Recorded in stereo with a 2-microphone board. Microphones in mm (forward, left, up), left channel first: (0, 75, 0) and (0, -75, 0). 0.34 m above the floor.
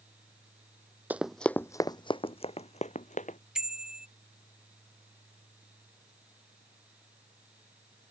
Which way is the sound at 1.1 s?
10° right (ahead or behind).